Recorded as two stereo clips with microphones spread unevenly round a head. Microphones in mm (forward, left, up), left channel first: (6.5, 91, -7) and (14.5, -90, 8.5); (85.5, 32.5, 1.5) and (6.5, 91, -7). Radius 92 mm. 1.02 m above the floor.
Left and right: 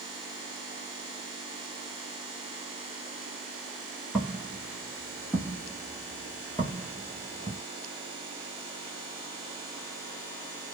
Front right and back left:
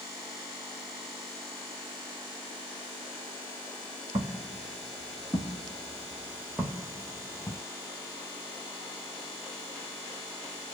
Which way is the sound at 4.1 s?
Straight behind.